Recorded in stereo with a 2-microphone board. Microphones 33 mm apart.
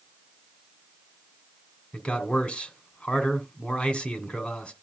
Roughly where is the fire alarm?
No fire alarm in this recording.